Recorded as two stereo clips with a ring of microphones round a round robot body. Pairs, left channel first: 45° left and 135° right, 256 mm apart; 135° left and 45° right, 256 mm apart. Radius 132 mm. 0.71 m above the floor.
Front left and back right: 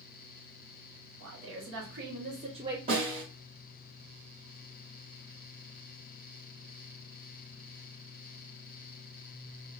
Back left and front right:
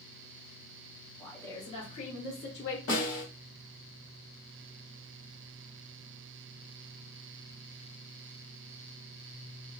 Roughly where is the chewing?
I don't hear chewing.